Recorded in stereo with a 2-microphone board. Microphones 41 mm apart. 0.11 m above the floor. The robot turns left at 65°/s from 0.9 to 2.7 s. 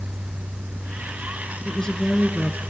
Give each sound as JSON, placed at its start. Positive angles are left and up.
{"t": 1.6, "sound": "a woman speaking", "side_deg": 20, "distance_m": 1.2}